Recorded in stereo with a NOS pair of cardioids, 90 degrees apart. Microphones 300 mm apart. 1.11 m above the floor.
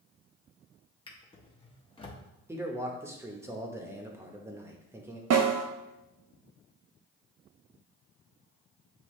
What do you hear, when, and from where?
1.1 s a drawer: 20° left, 1.0 m
2.5 s a man speaking: 10° right, 1.1 m
5.3 s a snare drum: 60° right, 0.8 m